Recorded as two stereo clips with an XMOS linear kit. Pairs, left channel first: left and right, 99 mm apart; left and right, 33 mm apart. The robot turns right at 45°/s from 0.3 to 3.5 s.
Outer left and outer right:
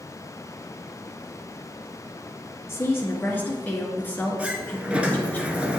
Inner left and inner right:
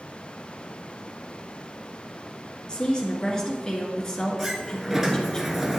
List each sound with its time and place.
2.7 s a woman speaking: 30° left (ahead or behind), 1.6 m; by 5.4 s 20° left (ahead or behind), 1.6 m
4.4 s a sliding door: 10° right (ahead or behind), 0.9 m